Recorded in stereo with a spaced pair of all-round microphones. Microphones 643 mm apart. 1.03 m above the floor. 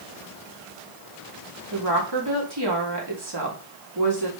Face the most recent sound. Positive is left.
turn(degrees=-40)  # may be behind; listen again after turning